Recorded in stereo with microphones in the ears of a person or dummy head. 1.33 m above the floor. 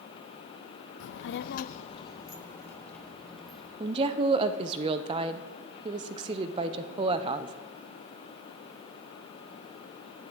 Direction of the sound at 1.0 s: 65° left (ahead or behind).